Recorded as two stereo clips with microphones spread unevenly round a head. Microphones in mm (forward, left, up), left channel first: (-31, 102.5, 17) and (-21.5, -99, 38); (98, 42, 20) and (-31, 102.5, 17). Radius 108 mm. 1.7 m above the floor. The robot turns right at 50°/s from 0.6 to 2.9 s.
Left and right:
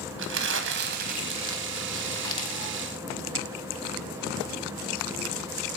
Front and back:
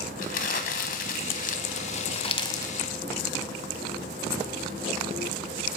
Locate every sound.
0.2 s crumpling: 70° right, 1.0 m; by 2.8 s 40° left, 1.0 m